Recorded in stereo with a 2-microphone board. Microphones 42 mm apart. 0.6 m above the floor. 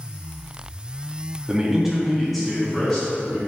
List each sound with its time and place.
1.5 s a man speaking: 20° right (ahead or behind), 0.7 m; by 3.4 s 20° left (ahead or behind), 1.1 m